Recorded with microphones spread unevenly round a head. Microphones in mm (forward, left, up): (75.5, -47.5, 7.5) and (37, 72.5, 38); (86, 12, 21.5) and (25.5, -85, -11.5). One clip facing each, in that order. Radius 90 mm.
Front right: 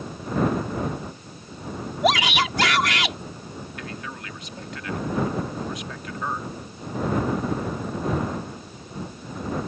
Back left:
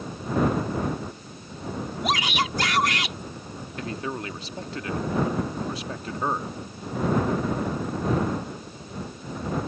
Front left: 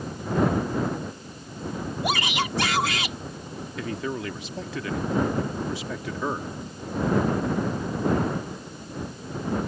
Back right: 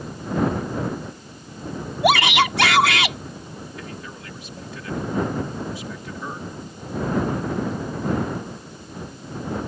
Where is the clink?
No clink in this recording.